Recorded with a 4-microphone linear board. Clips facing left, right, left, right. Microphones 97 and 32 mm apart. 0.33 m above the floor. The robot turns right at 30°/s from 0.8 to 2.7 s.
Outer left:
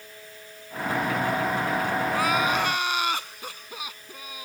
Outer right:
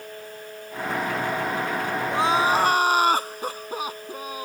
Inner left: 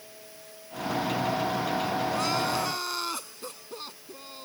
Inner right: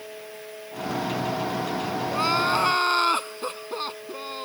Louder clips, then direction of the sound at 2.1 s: Outer right 6 dB, inner right 5 dB; 25° right (ahead or behind).